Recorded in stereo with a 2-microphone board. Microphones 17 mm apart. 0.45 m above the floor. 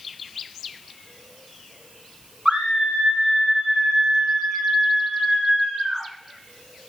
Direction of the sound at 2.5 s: 75° right (ahead or behind).